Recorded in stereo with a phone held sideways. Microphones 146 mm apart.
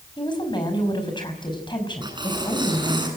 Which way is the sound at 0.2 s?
30° left (ahead or behind).